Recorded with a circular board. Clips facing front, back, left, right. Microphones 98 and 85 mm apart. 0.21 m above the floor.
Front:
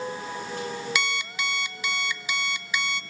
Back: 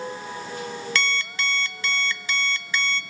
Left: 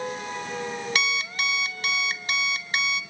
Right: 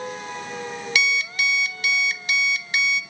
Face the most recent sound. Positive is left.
turn(degrees=70)